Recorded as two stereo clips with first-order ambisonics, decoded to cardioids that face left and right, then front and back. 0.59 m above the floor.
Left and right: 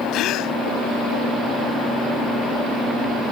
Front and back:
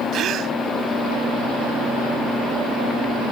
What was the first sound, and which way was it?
A gasp, 130° left.